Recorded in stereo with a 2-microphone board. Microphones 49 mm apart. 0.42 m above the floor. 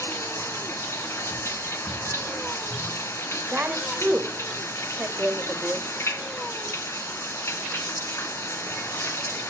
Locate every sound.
0.0 s running water: 65° left (ahead or behind), 1.2 m
3.5 s a woman speaking: 35° right (ahead or behind), 1.5 m